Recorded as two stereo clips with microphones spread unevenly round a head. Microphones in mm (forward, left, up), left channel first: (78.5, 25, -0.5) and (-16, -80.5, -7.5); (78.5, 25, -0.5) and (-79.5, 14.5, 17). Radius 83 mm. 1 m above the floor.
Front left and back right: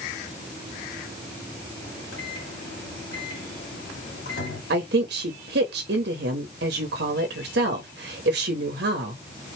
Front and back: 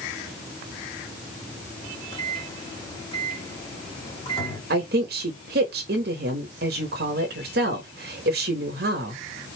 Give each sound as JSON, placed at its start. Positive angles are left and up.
{"t": 1.8, "sound": "a microwave", "azimuth_deg": 60, "distance_m": 2.5}
{"t": 4.7, "sound": "a woman speaking", "azimuth_deg": -140, "distance_m": 1.0}